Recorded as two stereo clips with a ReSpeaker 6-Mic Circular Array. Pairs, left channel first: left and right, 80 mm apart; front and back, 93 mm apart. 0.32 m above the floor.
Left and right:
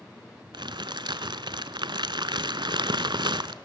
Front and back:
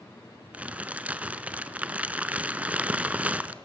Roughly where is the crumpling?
Right.